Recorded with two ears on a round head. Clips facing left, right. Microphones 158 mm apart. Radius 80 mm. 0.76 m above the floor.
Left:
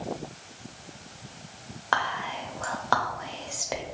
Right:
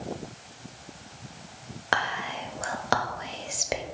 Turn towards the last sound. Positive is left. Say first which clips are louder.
# even
turn(degrees=-25)  # may be behind; listen again after turning